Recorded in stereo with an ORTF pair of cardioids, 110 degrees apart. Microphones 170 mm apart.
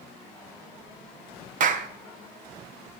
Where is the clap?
50° right, 0.9 m.